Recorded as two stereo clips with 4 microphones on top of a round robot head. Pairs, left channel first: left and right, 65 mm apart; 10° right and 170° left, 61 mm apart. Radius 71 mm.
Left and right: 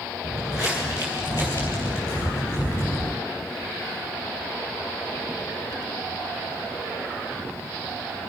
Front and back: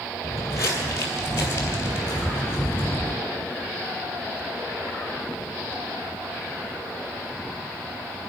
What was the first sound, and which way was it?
Footsteps, 30° left.